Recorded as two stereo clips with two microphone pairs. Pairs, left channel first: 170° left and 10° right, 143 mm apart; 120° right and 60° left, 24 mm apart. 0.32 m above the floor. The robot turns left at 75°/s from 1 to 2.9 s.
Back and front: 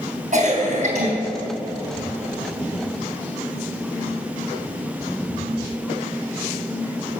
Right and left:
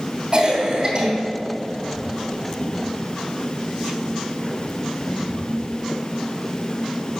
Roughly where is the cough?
Ahead.